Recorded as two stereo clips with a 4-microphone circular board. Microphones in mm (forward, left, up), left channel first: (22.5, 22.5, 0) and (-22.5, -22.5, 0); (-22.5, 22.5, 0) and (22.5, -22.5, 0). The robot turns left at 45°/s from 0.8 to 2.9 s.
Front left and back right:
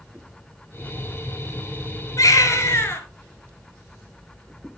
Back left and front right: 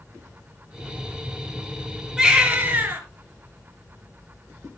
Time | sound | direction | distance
2.2 | a baby crying | 30° left | 2.5 m